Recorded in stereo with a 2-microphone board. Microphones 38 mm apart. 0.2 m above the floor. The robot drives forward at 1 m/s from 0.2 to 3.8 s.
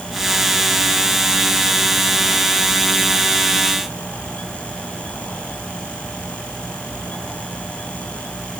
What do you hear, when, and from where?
Only background noise.